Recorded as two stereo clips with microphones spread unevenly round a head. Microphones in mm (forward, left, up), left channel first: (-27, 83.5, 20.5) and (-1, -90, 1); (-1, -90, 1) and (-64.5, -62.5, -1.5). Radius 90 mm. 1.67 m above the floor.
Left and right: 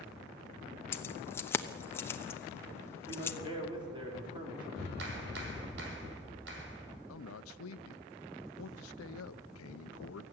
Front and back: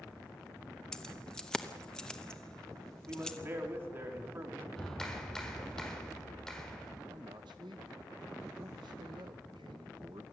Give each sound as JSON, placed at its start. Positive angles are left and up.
{"t": 0.9, "sound": "keys jangling", "azimuth_deg": 45, "distance_m": 1.0}
{"t": 3.1, "sound": "a man speaking", "azimuth_deg": -145, "distance_m": 5.0}
{"t": 4.8, "sound": "a clap", "azimuth_deg": -105, "distance_m": 5.5}
{"t": 7.1, "sound": "a man speaking", "azimuth_deg": 95, "distance_m": 1.0}